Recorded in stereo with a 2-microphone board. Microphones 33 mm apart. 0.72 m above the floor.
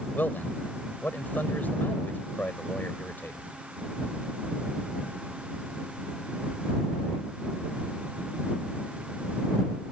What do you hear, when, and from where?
0.1 s a man speaking: 80° left